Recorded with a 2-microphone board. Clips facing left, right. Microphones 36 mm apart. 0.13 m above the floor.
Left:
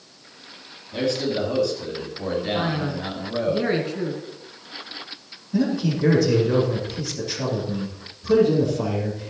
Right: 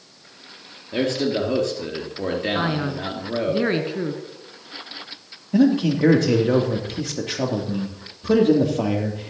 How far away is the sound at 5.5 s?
About 3 m.